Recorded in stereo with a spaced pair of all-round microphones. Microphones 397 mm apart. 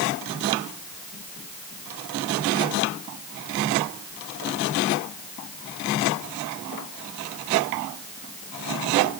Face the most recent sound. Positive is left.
No sound to turn to.